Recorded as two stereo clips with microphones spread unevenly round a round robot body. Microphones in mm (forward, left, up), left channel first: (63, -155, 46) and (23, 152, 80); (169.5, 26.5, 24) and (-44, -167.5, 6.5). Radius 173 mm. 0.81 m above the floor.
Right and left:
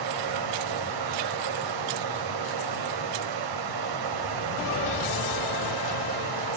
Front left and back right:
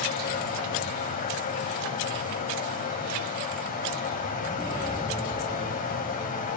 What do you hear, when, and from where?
0.0 s running water: 105° left, 1.2 m